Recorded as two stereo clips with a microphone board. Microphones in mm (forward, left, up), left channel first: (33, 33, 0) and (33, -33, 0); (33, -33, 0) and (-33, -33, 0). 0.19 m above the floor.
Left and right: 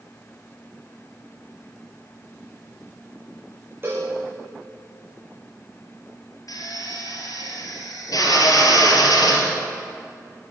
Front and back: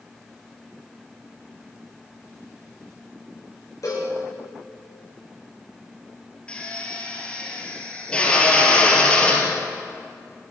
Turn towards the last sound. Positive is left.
turn(degrees=70)